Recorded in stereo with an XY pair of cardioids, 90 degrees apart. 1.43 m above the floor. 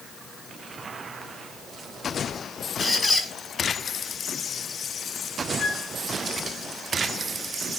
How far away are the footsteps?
I don't hear footsteps.